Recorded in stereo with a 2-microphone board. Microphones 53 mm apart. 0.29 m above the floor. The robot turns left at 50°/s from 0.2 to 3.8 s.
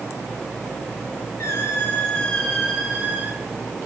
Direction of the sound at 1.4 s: 60° left.